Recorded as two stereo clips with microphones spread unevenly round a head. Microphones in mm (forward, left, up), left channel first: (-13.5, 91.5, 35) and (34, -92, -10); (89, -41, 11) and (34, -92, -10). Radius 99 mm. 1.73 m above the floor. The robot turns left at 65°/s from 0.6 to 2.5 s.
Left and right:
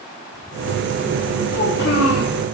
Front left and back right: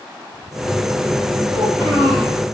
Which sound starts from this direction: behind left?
A child speaking, at 1.5 s.